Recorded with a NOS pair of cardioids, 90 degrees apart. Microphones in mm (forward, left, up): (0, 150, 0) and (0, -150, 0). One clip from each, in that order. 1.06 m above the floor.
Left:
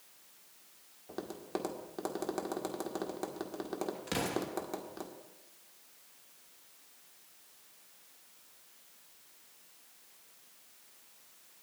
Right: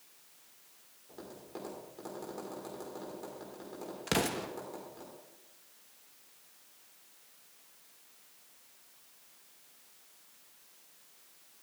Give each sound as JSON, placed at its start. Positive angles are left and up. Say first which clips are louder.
{"t": 1.1, "sound": "tapping", "louder": "left 7 dB", "azimuth_deg": 65, "distance_m": 1.6}
{"t": 4.1, "sound": "an explosion", "louder": "right 4 dB", "azimuth_deg": -40, "distance_m": 1.2}